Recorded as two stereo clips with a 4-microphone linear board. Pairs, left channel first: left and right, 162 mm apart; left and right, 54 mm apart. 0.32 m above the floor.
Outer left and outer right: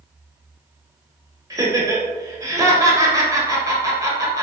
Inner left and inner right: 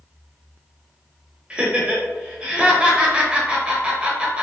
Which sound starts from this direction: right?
Laughter, at 1.5 s.